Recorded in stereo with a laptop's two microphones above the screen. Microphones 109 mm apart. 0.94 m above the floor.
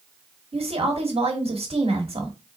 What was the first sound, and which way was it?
A woman speaking, 75° right (ahead or behind).